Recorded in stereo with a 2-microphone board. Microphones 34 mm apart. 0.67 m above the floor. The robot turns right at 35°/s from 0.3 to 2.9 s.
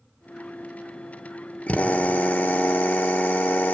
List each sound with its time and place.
1.7 s a drill: 50° left, 1.1 m; by 3.8 s 95° left, 1.1 m